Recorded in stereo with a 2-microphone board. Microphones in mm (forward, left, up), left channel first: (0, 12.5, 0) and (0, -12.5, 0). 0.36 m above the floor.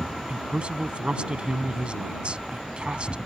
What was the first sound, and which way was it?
A man speaking, 45° right (ahead or behind).